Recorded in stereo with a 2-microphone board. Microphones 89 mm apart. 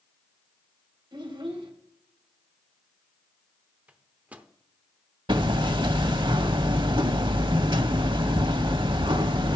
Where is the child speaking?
70° right (ahead or behind), 2 m.